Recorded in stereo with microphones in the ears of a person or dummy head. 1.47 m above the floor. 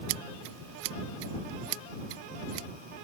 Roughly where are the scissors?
Right.